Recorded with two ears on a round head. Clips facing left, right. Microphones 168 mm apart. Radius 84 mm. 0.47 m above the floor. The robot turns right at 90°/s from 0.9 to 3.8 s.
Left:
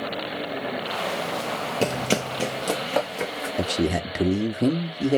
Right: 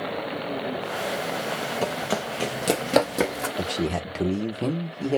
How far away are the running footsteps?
About 0.5 m.